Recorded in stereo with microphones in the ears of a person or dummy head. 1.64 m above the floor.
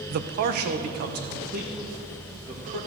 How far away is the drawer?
I don't hear a drawer.